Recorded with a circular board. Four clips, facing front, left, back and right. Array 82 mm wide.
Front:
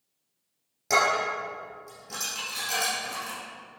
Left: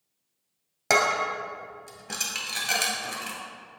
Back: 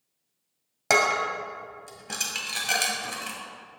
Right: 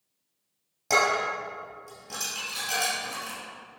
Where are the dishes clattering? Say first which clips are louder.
Left 1 dB, back 1 dB; 130° left, 1.9 m.